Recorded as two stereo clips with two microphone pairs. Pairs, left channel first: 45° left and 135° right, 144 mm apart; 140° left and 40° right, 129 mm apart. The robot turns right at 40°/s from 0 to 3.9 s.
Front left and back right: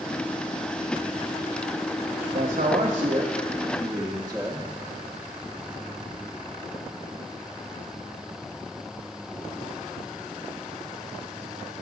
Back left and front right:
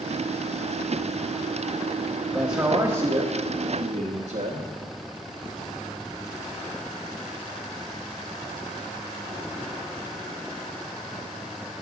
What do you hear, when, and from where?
2.3 s a man speaking: 115° right, 1.0 m; by 4.7 s 55° right, 1.0 m